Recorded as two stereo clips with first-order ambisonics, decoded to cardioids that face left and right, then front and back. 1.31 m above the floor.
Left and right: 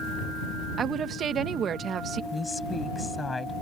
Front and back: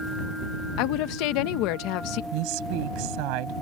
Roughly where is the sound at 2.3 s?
Behind.